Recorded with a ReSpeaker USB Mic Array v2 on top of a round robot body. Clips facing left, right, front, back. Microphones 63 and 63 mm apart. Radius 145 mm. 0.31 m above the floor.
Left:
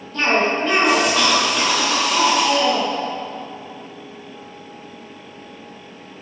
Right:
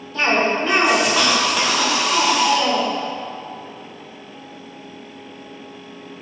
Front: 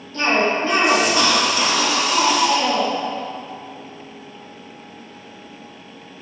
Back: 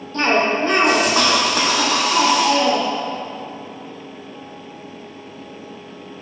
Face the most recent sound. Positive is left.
turn(degrees=-175)